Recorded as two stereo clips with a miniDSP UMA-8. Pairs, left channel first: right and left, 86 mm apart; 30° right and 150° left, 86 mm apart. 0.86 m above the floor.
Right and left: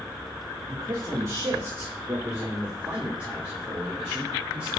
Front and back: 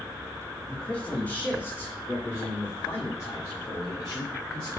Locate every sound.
0.7 s a man speaking: 50° left, 1.3 m; by 4.7 s 5° left, 3.5 m